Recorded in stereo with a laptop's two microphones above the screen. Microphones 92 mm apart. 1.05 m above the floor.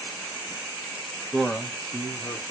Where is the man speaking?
5° left (ahead or behind), 1.0 m; by 2.5 s 55° left (ahead or behind), 1.6 m.